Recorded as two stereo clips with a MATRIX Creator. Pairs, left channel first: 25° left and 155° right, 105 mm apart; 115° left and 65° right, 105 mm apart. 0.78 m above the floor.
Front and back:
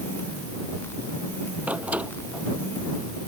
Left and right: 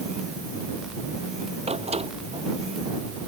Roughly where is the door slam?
Right.